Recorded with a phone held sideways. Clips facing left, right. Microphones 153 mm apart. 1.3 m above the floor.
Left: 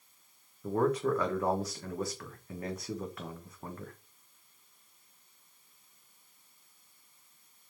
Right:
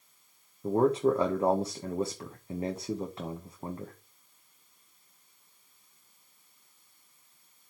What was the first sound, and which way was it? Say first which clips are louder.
A man speaking: right 4 dB; 25° right (ahead or behind).